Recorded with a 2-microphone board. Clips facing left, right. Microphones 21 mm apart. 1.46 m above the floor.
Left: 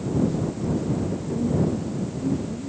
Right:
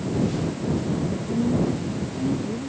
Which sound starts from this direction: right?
A woman speaking, at 1.3 s.